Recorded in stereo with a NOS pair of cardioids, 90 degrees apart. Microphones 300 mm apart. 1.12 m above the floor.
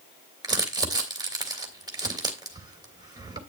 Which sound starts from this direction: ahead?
Crumpling, at 0.4 s.